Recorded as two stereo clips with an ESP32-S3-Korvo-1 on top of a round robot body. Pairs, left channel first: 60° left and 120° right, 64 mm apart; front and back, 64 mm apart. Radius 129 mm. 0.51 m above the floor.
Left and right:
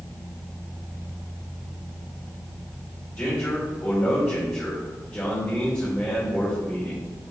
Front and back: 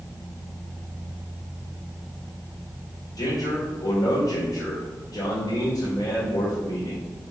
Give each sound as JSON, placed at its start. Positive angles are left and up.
{"t": 3.2, "sound": "a man speaking", "azimuth_deg": -15, "distance_m": 2.5}